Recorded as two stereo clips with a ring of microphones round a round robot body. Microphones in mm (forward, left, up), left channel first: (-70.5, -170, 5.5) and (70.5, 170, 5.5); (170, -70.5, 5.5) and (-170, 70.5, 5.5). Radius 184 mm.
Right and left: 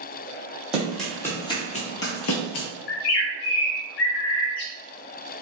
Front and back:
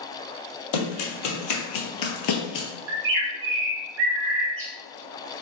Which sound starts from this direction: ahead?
Running footsteps, at 0.7 s.